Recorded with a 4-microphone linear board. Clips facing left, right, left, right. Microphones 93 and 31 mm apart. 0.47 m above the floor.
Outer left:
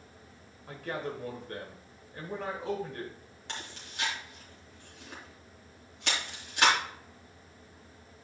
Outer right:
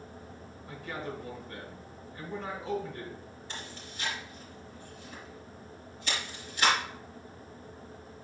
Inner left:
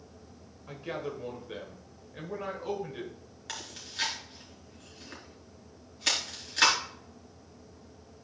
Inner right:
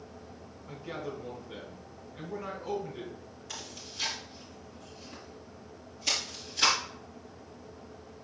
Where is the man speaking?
55° left (ahead or behind), 1.7 m.